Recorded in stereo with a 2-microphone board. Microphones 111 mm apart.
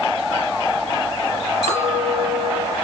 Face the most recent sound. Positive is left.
turn(degrees=-65)  # may be behind; listen again after turning